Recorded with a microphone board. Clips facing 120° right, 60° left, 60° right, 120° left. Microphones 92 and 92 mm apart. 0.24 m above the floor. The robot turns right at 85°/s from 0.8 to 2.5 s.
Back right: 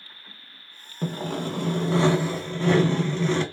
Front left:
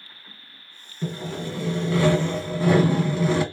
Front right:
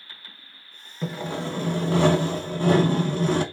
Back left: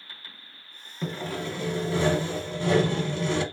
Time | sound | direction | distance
1.0 | sawing | 150° right | 0.6 m